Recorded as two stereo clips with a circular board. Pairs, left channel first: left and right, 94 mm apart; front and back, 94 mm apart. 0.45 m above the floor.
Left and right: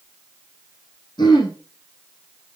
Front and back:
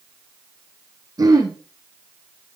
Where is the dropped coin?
No dropped coin in this recording.